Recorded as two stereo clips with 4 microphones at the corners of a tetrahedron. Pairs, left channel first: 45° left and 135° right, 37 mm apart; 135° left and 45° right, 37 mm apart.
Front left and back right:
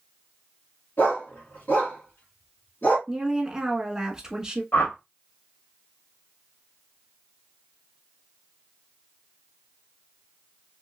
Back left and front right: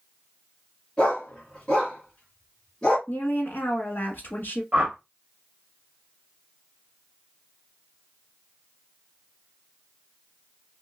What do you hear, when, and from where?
1.0 s a dog barking: 70° left, 2 m
3.1 s a woman speaking: 150° left, 1.3 m
4.7 s a whoosh: 15° left, 1.4 m